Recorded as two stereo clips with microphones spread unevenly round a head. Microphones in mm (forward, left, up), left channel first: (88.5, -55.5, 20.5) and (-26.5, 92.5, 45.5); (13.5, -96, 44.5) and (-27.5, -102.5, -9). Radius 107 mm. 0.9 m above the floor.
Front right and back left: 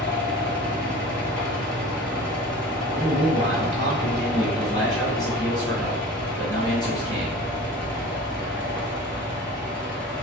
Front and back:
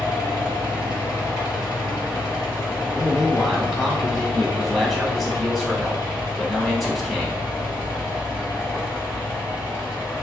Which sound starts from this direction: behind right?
A man speaking, at 3.0 s.